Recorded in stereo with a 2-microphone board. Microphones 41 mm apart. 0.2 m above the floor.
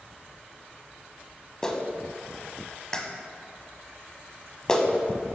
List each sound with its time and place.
1.6 s a clap: 15° left (ahead or behind), 0.8 m